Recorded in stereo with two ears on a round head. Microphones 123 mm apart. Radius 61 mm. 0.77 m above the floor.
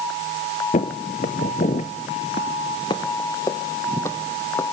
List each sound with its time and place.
0.7 s footsteps: 55° left (ahead or behind), 1.3 m; by 4.6 s 15° left (ahead or behind), 2 m